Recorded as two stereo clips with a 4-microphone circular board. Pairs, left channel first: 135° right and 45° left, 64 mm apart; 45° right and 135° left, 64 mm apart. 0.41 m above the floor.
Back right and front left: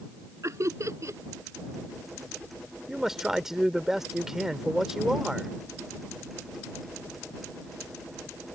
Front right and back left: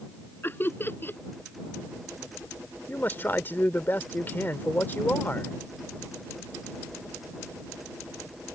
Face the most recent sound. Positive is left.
turn(degrees=-35)